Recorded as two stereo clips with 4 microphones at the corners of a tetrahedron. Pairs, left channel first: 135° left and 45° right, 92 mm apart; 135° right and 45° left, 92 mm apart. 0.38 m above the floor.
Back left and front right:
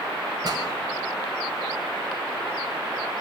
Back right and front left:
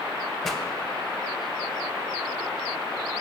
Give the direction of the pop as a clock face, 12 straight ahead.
2 o'clock.